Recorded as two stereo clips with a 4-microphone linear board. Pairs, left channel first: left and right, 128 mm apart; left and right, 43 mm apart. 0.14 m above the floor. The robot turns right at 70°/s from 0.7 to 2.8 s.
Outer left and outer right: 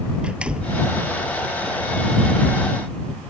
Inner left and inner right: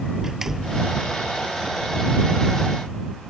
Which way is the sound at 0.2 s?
10° right (ahead or behind).